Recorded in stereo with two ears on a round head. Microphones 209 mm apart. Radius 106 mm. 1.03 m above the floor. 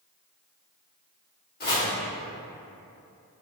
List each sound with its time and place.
1.6 s chopping: 40° left (ahead or behind), 1.5 m